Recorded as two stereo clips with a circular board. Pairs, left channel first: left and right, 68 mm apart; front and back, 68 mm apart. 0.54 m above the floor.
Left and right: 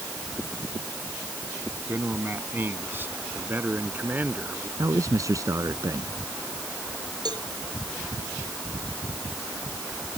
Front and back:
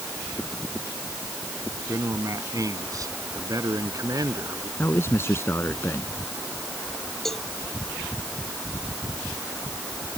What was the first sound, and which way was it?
A man speaking, 145° right.